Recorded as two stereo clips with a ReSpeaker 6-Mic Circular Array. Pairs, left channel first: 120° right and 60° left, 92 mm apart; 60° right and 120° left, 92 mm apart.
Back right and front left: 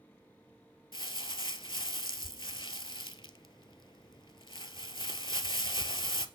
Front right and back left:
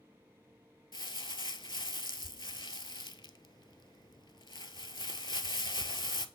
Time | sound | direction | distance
0.9 | crumpling | 95° right | 0.5 m